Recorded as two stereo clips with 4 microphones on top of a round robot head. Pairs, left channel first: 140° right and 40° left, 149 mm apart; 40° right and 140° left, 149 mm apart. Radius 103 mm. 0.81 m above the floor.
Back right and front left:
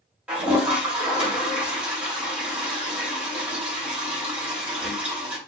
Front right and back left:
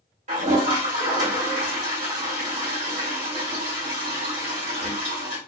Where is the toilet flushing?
120° left, 2.5 m.